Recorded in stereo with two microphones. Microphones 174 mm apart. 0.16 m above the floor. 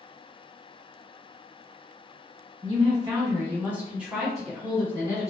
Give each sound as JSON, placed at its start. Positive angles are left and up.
{"t": 2.6, "sound": "a woman speaking", "side_deg": -30, "distance_m": 1.5}